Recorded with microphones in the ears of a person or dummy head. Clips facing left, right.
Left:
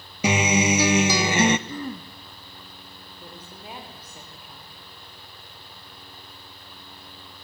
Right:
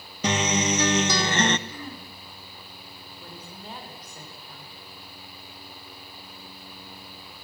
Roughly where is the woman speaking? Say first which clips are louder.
Even; centre.